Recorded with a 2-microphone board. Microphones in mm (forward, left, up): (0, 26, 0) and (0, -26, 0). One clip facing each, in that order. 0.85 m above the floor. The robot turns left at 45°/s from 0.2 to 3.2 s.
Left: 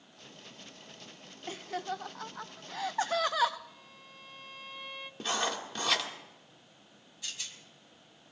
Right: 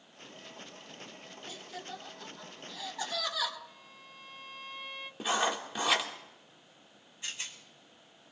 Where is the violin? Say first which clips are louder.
Even; centre (ahead or behind), 0.8 m.